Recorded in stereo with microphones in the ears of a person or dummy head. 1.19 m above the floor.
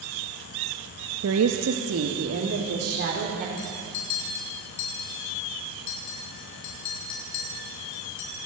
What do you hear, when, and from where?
1.2 s a woman speaking: 75° right (ahead or behind), 1.4 m; by 3.5 s 45° right (ahead or behind), 4 m
3.6 s a clink: 60° left (ahead or behind), 6 m